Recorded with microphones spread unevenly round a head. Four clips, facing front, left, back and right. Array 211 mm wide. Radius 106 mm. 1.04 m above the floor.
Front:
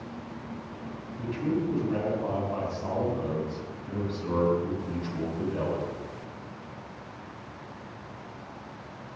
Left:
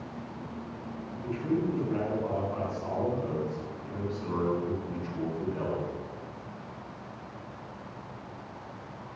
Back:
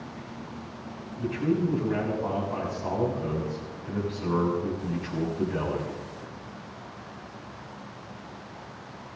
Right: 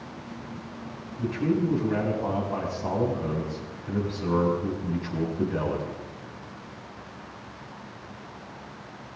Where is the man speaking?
110° right, 7 m.